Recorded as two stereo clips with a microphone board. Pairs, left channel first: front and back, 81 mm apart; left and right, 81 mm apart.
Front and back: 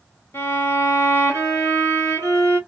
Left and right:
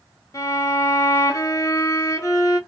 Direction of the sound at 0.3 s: 55° left.